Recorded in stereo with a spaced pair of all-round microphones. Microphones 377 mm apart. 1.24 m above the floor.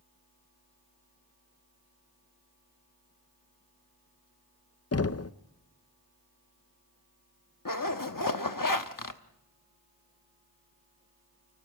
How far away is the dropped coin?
I don't hear a dropped coin.